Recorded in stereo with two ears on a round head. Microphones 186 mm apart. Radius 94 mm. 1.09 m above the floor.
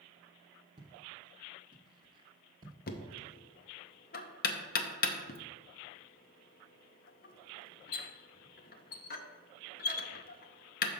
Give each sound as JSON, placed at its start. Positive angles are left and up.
{"t": 0.8, "sound": "footsteps", "side_deg": -20, "distance_m": 1.1}
{"t": 2.9, "sound": "knocking", "side_deg": 45, "distance_m": 0.6}